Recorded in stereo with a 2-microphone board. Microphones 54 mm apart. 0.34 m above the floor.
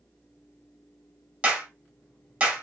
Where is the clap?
20° right (ahead or behind), 1.5 m.